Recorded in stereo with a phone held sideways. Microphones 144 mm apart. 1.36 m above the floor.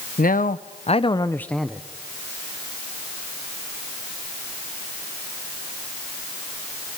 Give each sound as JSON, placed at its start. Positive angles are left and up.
{"t": 0.2, "sound": "a man speaking", "side_deg": 80, "distance_m": 0.9}